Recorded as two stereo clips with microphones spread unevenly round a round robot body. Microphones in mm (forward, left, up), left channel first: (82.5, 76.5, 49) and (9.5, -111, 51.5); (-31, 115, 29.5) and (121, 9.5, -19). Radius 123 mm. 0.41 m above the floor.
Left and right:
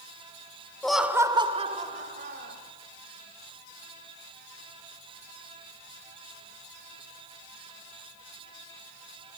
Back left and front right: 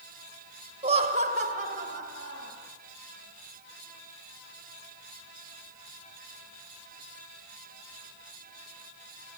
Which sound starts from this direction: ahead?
Laughter, at 0.8 s.